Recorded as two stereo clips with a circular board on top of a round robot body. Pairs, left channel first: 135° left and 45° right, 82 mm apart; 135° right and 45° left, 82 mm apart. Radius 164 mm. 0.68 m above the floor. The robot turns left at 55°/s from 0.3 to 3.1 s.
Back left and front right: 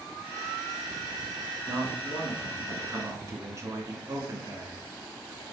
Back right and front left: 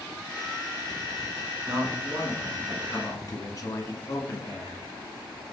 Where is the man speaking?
10° right, 1.5 m; by 4.8 s 90° right, 1.5 m.